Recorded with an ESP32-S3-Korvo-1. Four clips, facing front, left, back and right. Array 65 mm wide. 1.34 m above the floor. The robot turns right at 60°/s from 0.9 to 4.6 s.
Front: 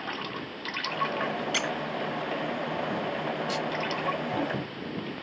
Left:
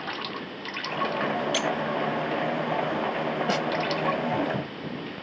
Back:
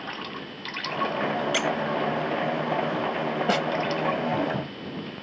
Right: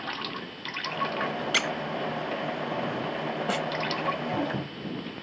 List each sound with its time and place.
1.5 s a squeak: 95° right; by 1.7 s 85° right
3.5 s a snare drum: 165° left; by 3.7 s 175° left